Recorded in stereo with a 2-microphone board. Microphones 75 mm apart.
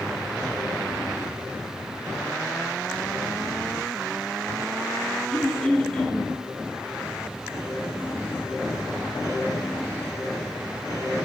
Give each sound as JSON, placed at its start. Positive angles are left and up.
{"t": 5.3, "sound": "throat clearing", "side_deg": 15, "distance_m": 1.1}